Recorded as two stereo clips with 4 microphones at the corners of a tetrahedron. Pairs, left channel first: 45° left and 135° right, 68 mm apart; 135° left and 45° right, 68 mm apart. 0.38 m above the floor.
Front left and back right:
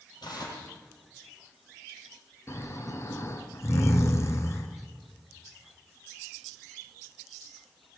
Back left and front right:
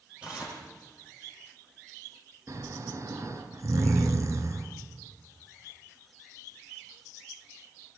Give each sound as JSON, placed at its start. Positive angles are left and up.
{"t": 0.2, "sound": "tearing paper", "azimuth_deg": 25, "distance_m": 9.0}
{"t": 2.5, "sound": "snoring", "azimuth_deg": -5, "distance_m": 3.0}